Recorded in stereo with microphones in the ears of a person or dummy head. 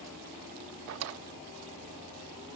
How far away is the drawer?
About 0.8 m.